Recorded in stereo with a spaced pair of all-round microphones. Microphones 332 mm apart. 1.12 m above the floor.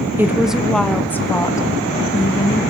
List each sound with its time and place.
0.2 s a woman speaking: 5° right (ahead or behind), 1.2 m; by 2.6 s 15° left (ahead or behind), 2 m